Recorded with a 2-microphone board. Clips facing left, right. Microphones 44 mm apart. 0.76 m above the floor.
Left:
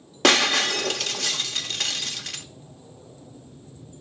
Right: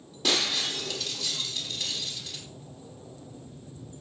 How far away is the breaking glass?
About 0.9 m.